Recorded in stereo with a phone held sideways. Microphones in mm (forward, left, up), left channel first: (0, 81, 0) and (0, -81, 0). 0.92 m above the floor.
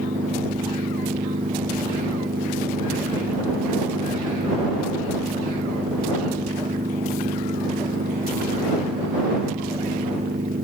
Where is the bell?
I don't hear a bell.